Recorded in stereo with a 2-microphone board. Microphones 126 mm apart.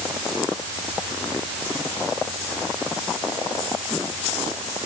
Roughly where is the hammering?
I don't hear hammering.